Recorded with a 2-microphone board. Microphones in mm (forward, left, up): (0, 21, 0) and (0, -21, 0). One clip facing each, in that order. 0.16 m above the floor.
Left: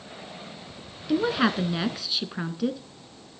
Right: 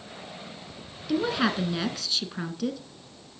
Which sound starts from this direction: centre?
A woman speaking, at 1.1 s.